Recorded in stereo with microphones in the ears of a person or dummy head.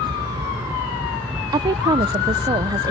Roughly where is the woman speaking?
Right.